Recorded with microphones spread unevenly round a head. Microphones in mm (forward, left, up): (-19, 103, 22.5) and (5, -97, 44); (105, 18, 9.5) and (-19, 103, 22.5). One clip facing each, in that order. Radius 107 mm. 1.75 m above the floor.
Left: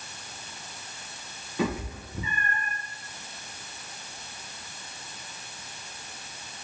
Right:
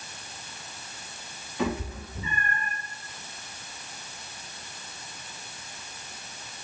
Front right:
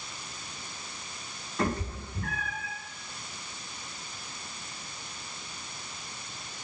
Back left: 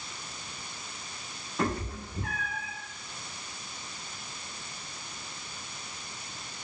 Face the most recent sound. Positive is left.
turn(degrees=95)